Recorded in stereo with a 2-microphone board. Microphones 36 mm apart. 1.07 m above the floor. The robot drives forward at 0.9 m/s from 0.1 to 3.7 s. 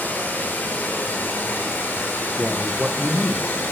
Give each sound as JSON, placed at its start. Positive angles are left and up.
{"t": 0.0, "sound": "running water", "side_deg": 55, "distance_m": 6.0}
{"t": 2.4, "sound": "a man speaking", "side_deg": -35, "distance_m": 0.7}